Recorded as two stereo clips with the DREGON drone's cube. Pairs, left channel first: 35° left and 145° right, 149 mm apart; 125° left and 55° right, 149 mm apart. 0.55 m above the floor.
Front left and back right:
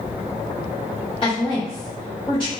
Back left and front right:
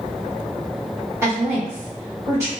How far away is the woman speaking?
About 1.5 m.